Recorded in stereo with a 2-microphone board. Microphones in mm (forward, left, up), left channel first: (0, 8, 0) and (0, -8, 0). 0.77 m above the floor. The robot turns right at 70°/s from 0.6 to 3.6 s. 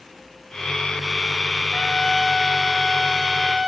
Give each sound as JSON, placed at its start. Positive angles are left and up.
{"t": 1.7, "sound": "a trumpet", "azimuth_deg": 105, "distance_m": 2.5}